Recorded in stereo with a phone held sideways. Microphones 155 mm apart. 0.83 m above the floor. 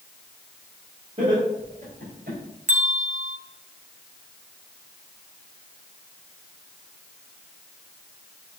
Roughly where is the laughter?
Right.